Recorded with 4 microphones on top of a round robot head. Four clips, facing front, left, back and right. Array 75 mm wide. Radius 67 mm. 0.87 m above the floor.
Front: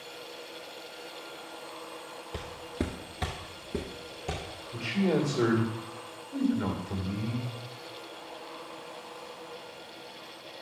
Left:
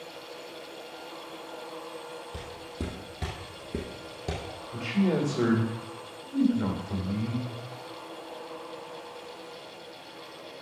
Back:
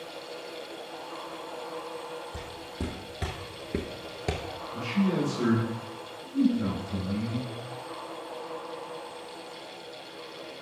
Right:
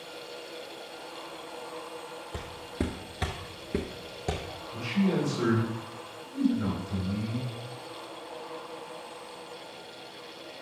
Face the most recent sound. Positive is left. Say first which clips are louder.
# left 1 dB, even
turn(degrees=45)